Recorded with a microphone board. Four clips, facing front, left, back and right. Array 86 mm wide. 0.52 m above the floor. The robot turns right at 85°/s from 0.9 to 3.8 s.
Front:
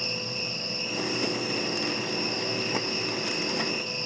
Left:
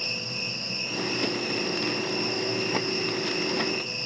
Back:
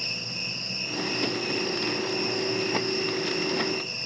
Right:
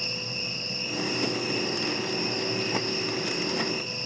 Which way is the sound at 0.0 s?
150° left.